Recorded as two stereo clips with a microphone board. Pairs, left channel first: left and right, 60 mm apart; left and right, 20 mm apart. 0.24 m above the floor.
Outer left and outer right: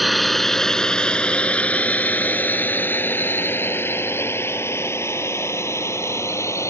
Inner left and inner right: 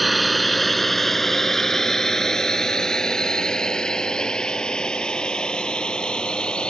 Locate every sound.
0.0 s a drone: centre (ahead or behind); by 6.7 s 50° left (ahead or behind)